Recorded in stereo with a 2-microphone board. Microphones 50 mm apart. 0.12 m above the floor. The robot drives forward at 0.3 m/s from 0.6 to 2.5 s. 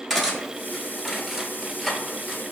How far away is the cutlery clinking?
About 0.9 m.